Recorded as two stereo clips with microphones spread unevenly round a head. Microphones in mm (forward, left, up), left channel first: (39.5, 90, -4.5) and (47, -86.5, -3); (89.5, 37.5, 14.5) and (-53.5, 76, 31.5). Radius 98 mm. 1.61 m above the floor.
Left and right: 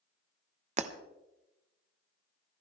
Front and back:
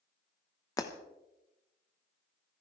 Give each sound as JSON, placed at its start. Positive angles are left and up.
{"t": 0.8, "sound": "breaking glass", "azimuth_deg": -85, "distance_m": 0.8}